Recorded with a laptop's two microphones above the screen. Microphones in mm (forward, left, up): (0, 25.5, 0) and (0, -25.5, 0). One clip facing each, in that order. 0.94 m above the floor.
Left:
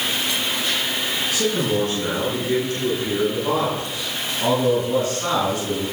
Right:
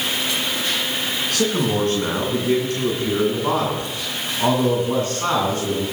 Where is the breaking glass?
I don't hear breaking glass.